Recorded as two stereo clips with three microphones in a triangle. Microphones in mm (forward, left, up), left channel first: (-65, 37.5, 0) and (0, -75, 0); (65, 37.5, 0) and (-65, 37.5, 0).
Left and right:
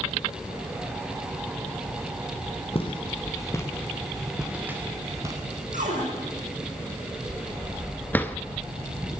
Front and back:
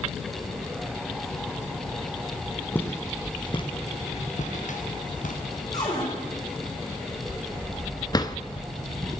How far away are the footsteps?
About 2 m.